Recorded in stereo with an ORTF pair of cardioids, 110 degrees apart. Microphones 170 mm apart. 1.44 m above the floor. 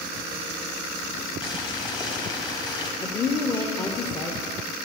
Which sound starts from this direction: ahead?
A woman speaking, at 3.0 s.